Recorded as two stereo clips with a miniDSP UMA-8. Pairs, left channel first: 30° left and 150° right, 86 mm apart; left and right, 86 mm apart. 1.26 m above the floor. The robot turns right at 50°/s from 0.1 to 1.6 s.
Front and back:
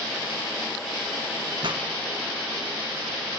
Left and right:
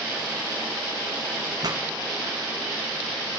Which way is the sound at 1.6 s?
125° right.